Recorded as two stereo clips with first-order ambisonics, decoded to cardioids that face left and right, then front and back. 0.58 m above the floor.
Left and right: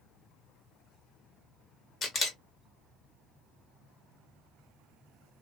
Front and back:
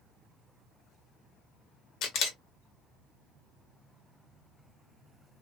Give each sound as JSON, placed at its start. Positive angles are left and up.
{"t": 2.0, "sound": "a camera shutter", "azimuth_deg": 30, "distance_m": 0.9}